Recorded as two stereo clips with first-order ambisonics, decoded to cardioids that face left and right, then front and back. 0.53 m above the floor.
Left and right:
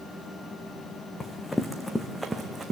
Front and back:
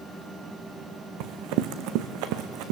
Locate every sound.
1.2 s running footsteps: 165° left, 1.7 m; by 2.7 s 165° right, 1.7 m